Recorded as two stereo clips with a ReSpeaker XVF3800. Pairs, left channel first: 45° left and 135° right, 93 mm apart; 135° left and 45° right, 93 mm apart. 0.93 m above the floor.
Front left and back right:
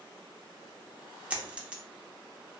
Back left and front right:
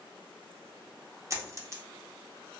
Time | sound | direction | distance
1.3 | a dropped coin | 65° right | 0.5 m